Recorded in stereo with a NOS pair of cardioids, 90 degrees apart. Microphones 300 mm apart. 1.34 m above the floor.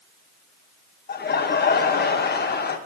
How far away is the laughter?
About 1.2 m.